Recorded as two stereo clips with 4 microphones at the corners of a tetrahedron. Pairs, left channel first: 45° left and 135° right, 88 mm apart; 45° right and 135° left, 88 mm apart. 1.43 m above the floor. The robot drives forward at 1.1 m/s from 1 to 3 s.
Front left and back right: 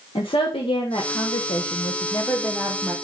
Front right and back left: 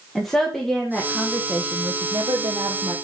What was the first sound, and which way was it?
A woman speaking, 40° left.